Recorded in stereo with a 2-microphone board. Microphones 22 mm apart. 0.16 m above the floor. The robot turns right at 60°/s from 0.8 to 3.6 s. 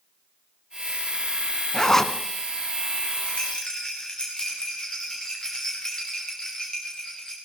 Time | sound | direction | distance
1.7 | a zipper | 25° left (ahead or behind) | 1.5 m
3.3 | a rattle | 55° left (ahead or behind) | 9.5 m